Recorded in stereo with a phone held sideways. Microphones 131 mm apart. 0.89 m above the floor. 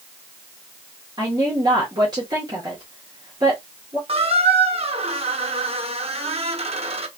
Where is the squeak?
50° right (ahead or behind), 0.6 m.